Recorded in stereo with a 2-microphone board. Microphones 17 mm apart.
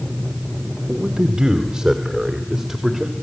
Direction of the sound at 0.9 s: 55° right (ahead or behind).